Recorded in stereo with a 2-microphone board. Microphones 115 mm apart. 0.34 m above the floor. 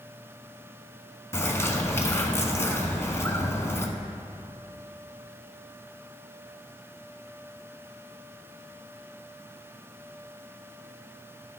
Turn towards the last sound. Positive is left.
turn(degrees=20)  # may be behind; listen again after turning